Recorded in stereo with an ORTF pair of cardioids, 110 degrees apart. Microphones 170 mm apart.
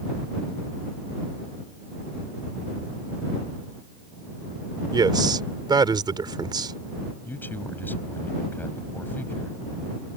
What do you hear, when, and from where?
4.9 s a man speaking: 25° right
7.2 s a man speaking: 10° left